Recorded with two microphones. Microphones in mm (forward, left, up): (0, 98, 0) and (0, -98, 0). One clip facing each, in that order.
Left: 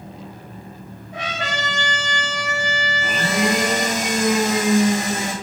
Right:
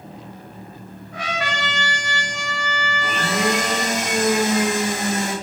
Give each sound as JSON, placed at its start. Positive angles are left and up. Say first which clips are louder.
{"t": 1.1, "sound": "a trumpet", "louder": "right 1 dB", "side_deg": 25, "distance_m": 1.2}
{"t": 3.0, "sound": "a blender", "louder": "left 1 dB", "side_deg": 0, "distance_m": 1.9}